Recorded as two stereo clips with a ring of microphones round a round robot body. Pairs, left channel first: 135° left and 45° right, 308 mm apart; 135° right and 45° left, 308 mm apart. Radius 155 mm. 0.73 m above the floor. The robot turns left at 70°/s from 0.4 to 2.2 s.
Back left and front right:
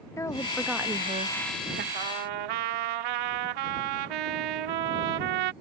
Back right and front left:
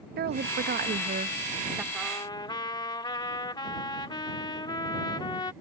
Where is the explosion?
I don't hear an explosion.